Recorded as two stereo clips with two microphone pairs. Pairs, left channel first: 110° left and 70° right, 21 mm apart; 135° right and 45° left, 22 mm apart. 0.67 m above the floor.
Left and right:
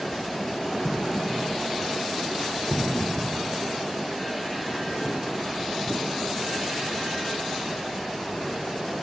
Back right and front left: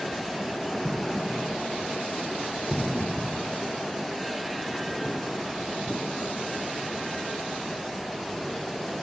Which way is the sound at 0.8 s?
125° left.